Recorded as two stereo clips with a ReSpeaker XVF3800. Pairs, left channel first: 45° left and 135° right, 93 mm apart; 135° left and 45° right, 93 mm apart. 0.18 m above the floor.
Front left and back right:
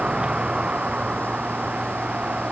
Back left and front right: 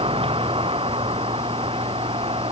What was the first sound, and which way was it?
A vehicle, 55° right.